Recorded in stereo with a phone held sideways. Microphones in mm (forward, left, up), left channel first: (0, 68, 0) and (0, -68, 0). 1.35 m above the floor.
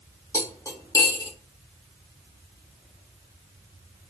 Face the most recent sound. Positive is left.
turn(degrees=25)  # may be behind; listen again after turning